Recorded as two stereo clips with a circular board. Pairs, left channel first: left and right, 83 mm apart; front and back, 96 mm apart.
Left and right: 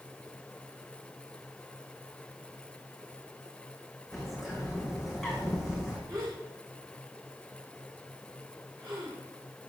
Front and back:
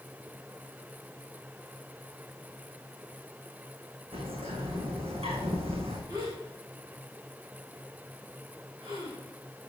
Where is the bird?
175° right, 3.5 m.